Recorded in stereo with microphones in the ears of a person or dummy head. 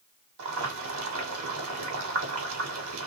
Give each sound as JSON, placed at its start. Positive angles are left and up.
{"t": 0.4, "sound": "boiling", "side_deg": -80, "distance_m": 1.6}